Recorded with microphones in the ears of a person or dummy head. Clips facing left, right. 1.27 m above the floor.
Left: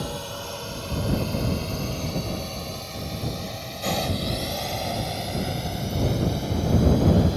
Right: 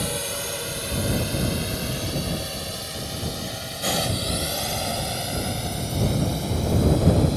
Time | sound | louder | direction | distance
0.0 | a drone | right 3 dB | 30° right (ahead or behind) | ?